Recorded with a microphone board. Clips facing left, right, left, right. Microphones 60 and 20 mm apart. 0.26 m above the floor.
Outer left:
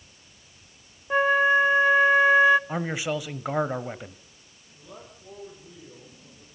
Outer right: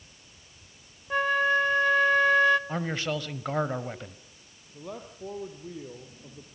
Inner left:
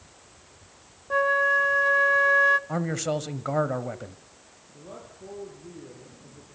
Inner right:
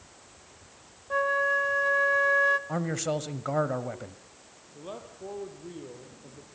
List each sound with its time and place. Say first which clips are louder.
1.1 s a flute: outer left 4 dB, inner left 4 dB; 15° left (ahead or behind), 0.7 m
2.7 s a man speaking: outer left 2 dB, inner left 2 dB; 10° left (ahead or behind), 1.1 m
4.7 s a man speaking: outer right 6 dB, inner right 2 dB; 60° right (ahead or behind), 6 m